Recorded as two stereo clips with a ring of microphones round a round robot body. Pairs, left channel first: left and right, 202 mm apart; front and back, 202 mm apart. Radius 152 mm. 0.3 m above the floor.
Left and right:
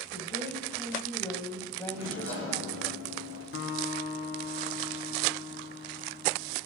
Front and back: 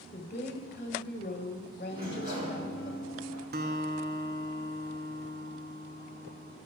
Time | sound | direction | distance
0.1 | a woman speaking | 35° left | 1.8 m
1.9 | a sliding door | 135° left | 5.5 m
3.5 | a guitar | 140° left | 1.4 m